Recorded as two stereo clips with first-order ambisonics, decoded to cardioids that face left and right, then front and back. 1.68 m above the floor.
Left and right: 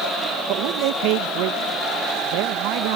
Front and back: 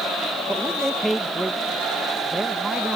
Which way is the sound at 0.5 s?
90° right.